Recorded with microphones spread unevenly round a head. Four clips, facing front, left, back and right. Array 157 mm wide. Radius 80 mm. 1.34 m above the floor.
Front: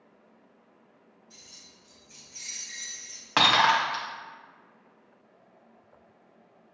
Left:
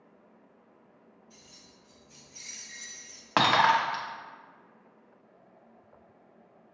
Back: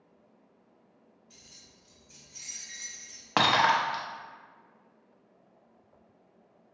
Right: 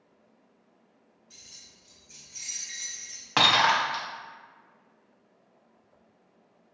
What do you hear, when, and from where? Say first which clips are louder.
1.3 s keys jangling: left 4 dB, front 3 dB; 145° right, 1.5 m; by 3.3 s 165° left, 1.7 m
3.4 s breaking glass: left 1 dB, front 1 dB; 130° left, 0.7 m